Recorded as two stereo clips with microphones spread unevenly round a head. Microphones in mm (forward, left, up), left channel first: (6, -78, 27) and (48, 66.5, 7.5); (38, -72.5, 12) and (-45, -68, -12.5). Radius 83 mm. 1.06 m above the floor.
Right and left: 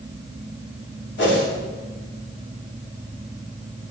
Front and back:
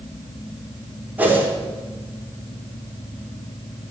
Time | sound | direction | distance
1.2 | a whoosh | 115° right | 3 m